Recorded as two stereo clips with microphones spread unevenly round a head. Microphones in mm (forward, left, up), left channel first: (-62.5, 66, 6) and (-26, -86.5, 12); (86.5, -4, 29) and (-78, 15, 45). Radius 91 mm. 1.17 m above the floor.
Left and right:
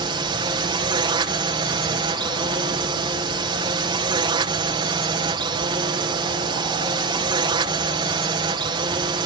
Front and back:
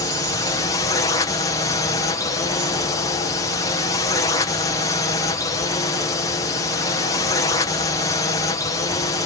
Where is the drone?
45° right.